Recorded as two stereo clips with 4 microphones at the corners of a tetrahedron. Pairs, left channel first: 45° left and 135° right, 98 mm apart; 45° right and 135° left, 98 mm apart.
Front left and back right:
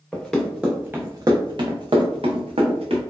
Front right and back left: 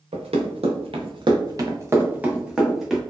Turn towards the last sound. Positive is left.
turn(degrees=-135)